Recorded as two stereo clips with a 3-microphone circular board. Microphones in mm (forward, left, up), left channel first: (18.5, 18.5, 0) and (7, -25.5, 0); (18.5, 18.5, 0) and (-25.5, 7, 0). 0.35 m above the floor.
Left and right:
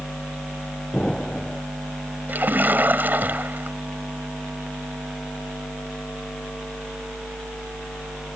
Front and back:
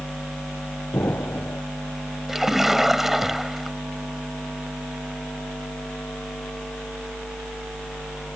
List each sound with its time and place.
0.9 s an explosion: straight ahead
2.3 s a splash: 80° right